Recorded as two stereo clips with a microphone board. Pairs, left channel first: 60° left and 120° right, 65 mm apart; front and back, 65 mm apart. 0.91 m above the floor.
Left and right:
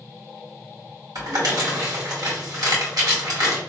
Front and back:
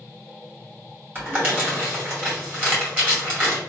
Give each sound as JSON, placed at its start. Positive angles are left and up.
{"t": 1.1, "sound": "crumpling", "azimuth_deg": -115, "distance_m": 2.0}